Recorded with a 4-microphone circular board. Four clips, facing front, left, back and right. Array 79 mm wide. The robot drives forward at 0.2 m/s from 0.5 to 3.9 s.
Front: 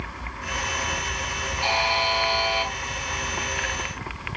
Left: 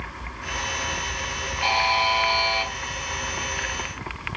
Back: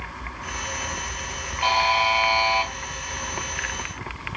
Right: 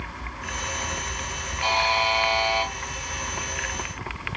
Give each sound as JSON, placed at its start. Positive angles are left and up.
{"t": 1.6, "sound": "a buzzer", "azimuth_deg": 175, "distance_m": 1.7}